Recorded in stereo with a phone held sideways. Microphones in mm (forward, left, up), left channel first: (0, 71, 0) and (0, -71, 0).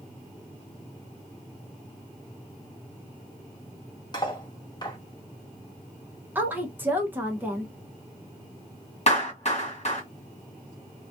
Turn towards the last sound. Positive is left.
turn(degrees=45)  # may be behind; listen again after turning